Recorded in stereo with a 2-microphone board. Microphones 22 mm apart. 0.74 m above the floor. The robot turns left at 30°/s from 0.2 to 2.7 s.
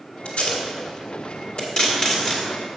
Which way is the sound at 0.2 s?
75° left (ahead or behind).